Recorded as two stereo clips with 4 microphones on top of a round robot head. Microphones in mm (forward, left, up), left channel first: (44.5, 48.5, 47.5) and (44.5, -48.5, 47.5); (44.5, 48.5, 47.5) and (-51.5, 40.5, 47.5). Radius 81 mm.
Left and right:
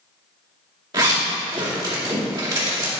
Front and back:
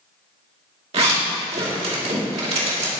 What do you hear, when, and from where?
0.9 s a zipper: 145° right, 2 m